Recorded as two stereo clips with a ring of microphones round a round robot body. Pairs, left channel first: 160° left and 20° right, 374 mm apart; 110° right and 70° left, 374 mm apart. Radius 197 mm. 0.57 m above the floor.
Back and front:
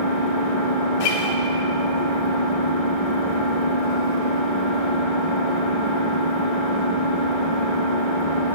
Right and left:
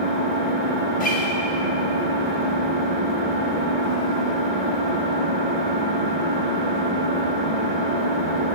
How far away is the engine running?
About 1.6 m.